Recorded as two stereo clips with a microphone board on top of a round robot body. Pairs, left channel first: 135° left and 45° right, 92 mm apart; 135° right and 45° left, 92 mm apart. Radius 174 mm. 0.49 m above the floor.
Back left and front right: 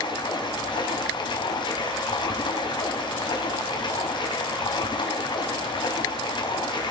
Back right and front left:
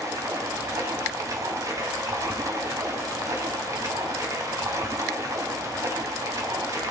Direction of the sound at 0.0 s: 100° left.